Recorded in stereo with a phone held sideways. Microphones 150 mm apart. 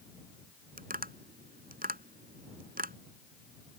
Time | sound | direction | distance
0.8 | tapping | 80° right | ?